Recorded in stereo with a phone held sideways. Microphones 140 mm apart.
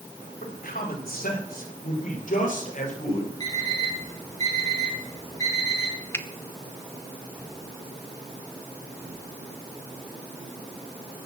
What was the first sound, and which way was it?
A man speaking, 80° left.